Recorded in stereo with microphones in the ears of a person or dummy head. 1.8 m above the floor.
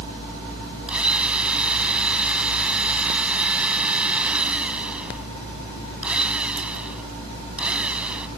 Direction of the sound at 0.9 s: 10° right (ahead or behind).